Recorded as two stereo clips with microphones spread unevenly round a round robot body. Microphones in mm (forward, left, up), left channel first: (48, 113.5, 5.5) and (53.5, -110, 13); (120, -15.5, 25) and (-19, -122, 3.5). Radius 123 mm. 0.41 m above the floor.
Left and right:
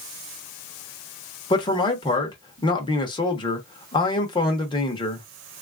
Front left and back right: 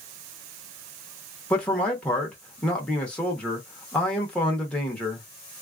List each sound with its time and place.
1.5 s a man speaking: 130° left, 0.8 m